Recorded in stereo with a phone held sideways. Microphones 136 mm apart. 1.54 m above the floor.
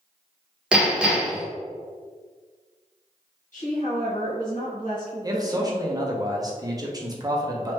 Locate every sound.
0.7 s hammering: 10° right (ahead or behind), 0.9 m
3.5 s a woman speaking: 70° left (ahead or behind), 1.4 m
5.2 s a man speaking: 25° right (ahead or behind), 0.7 m